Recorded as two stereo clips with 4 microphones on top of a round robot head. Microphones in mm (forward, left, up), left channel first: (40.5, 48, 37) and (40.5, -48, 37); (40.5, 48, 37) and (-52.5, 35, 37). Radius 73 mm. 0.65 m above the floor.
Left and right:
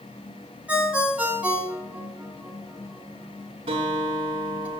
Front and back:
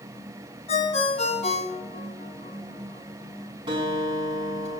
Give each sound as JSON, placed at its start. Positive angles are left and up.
{"t": 0.7, "sound": "a ringtone", "azimuth_deg": -15, "distance_m": 2.0}
{"t": 3.7, "sound": "a guitar", "azimuth_deg": -125, "distance_m": 5.5}